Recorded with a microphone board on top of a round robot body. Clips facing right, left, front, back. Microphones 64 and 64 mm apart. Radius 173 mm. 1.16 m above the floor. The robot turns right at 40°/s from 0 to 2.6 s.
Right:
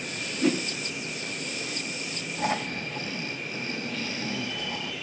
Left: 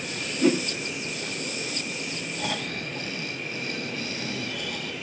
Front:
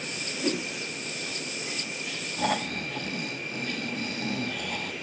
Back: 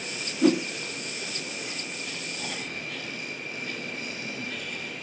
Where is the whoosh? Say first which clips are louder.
Left 3 dB, back 8 dB; 175° left, 1.1 m; by 0.6 s 175° right, 1.1 m.